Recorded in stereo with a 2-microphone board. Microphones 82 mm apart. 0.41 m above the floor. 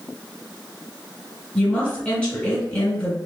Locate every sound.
1.6 s a woman speaking: 15° left (ahead or behind), 2.0 m